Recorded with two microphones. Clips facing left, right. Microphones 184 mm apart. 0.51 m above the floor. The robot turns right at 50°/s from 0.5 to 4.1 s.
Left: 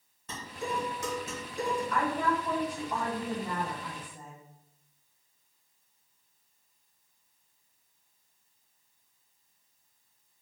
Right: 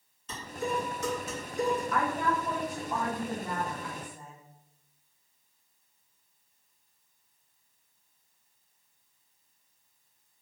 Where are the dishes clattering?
70° left (ahead or behind), 1.5 m; by 1.8 s 25° left (ahead or behind), 1.5 m.